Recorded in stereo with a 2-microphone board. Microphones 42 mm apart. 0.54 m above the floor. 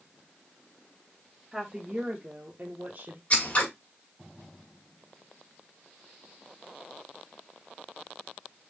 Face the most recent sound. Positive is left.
turn(degrees=35)  # may be behind; listen again after turning